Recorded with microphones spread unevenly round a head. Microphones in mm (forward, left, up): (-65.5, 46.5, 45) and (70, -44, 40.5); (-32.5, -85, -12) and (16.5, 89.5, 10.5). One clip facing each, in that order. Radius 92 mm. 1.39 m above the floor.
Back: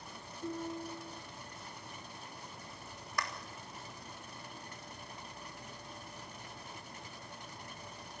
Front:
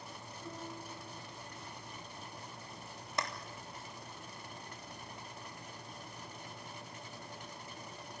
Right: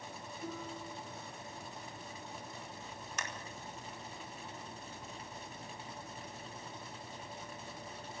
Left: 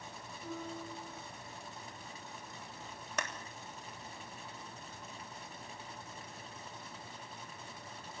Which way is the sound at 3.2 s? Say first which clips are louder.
Front 1 dB, left 6 dB; 35° left.